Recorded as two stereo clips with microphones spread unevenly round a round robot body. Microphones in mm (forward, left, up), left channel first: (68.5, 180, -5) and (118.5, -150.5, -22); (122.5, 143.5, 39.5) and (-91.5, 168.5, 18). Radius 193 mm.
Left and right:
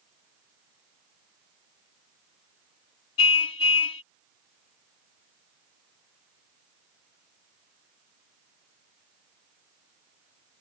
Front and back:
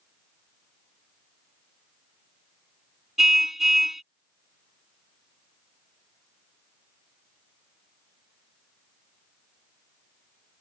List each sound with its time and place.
3.2 s a car horn: 85° left